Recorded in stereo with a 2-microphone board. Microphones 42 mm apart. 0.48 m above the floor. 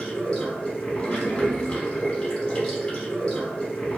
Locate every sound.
0.0 s running water: 30° left (ahead or behind), 0.9 m